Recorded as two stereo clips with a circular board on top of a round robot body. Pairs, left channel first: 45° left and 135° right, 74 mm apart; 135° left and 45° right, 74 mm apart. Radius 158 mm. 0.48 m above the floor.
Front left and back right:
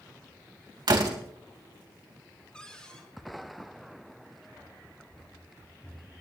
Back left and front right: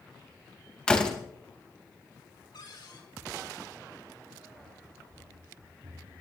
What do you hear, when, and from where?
0.9 s a door slam: 150° right, 3.5 m
2.5 s a cupboard door: 125° left, 6 m
4.5 s running footsteps: 35° right, 4.5 m; by 6.2 s 25° right, 3 m